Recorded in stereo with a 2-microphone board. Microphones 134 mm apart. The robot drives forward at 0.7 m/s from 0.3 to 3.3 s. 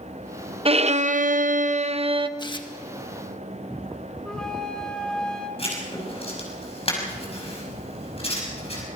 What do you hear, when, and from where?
0.7 s a violin: 45° right (ahead or behind), 0.7 m; by 2.3 s 40° right (ahead or behind), 0.8 m
2.4 s tearing paper: 35° left (ahead or behind), 1.5 m; by 2.7 s 40° left (ahead or behind), 1.3 m
4.2 s a flute: 5° left (ahead or behind), 3.5 m
5.6 s writing: 45° left (ahead or behind), 6 m